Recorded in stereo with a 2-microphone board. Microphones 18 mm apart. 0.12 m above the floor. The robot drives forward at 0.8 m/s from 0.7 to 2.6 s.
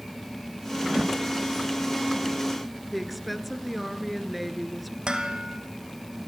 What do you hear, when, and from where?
0.8 s a whoosh: 50° right (ahead or behind), 0.6 m; by 1.2 s 40° right (ahead or behind), 0.8 m
2.9 s a woman speaking: centre (ahead or behind), 2 m
5.1 s dishes clattering: 55° right (ahead or behind), 2 m